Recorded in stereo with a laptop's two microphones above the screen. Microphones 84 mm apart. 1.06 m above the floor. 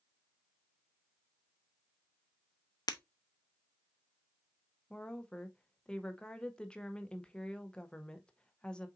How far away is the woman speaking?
About 0.6 m.